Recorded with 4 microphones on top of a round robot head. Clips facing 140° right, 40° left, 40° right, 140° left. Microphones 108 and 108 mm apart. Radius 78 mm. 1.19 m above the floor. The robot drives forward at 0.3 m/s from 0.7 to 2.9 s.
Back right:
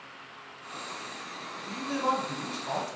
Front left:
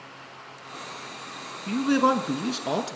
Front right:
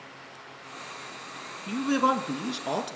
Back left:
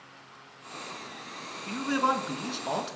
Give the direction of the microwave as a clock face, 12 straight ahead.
I don't hear a microwave.